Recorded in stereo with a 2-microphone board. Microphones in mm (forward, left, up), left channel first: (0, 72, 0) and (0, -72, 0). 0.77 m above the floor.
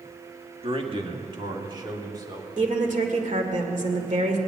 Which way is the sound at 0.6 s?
40° right (ahead or behind).